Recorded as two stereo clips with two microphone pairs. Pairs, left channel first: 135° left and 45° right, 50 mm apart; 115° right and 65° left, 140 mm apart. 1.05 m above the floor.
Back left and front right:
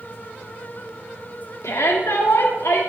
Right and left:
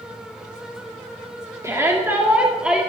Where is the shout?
130° left, 2.5 m; by 2.8 s 145° left, 2 m.